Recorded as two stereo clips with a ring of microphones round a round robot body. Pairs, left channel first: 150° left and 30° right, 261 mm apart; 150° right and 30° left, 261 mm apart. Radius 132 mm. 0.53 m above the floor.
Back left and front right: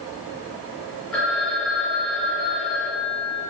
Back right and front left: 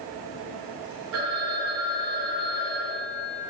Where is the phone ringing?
60° left, 6.5 m.